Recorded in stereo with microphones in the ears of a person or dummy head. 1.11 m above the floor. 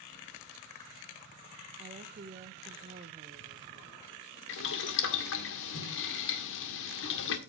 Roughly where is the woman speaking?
Right.